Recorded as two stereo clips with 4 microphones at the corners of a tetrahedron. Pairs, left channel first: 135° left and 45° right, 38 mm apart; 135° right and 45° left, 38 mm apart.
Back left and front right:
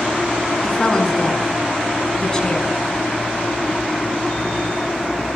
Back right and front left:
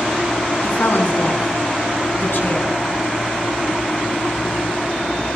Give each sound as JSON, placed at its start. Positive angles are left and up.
{"t": 0.6, "sound": "a woman speaking", "azimuth_deg": -155, "distance_m": 6.5}